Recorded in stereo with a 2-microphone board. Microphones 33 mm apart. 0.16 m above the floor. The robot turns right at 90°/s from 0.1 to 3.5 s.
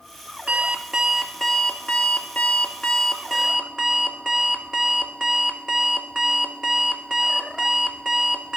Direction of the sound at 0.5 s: 60° right.